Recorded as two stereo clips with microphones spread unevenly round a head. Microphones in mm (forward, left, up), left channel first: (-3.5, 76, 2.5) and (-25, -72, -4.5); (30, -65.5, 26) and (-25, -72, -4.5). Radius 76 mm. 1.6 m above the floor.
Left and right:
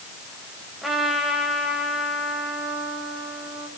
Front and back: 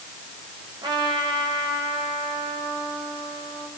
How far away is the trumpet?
About 4.5 m.